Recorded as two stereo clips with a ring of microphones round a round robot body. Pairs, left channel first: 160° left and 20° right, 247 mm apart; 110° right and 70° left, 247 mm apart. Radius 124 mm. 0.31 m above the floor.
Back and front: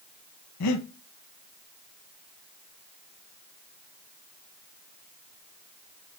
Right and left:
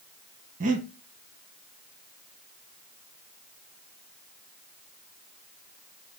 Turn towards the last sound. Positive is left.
turn(degrees=130)